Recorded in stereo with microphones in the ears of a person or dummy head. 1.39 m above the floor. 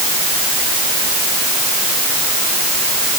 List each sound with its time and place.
Only background noise.